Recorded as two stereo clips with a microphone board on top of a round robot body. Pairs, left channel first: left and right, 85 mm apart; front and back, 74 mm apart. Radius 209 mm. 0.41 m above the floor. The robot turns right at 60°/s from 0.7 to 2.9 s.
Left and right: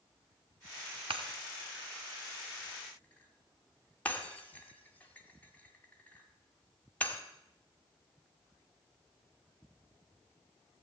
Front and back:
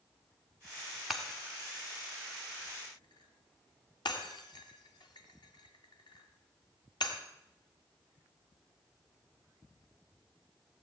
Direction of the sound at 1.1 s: 90° right.